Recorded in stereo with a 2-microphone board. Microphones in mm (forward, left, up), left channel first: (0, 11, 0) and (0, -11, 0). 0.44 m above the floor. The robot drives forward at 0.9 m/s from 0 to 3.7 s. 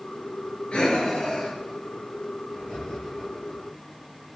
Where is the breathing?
55° left (ahead or behind), 4 m; by 3.6 s 35° left (ahead or behind), 6 m.